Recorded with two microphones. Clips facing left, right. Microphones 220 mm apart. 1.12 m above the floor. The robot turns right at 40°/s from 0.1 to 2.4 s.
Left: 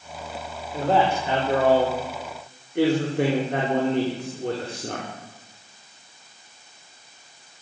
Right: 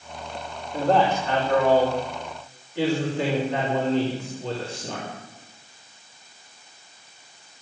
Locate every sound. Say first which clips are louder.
0.7 s a man speaking: right 1 dB; 5° right, 4 m; by 5.1 s 60° left, 4 m